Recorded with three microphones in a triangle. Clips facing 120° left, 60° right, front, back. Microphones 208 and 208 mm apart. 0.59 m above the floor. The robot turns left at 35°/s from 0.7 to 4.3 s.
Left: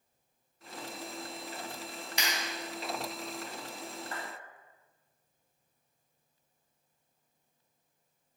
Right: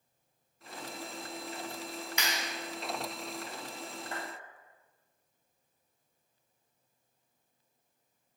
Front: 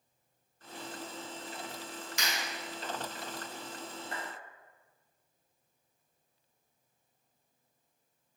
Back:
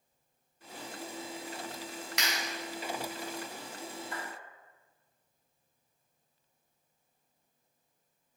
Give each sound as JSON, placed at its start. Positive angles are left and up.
{"t": 2.2, "sound": "a clap", "azimuth_deg": 175, "distance_m": 3.0}
{"t": 4.1, "sound": "a clap", "azimuth_deg": 0, "distance_m": 2.5}